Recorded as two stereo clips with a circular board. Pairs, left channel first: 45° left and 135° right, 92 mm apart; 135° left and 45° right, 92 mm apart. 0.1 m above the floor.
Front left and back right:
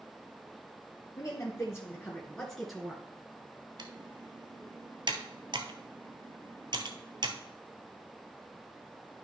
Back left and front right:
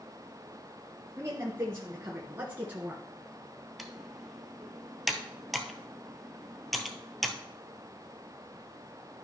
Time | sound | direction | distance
1.2 | a woman speaking | 10° left | 2.5 m
3.8 | typing on a keyboard | 135° right | 0.9 m